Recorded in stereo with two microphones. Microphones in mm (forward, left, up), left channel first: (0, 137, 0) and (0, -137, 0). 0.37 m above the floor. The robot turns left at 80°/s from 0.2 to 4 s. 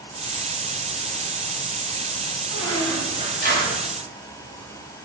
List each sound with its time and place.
2.5 s a squeak: 35° left, 1.5 m; by 3.8 s 70° right, 1.5 m